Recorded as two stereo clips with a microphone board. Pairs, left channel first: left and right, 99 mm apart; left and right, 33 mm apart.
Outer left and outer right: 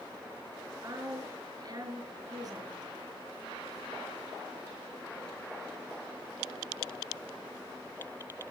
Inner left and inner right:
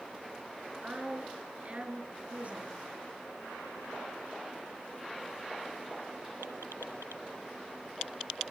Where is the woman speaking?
40° right (ahead or behind), 4.5 m.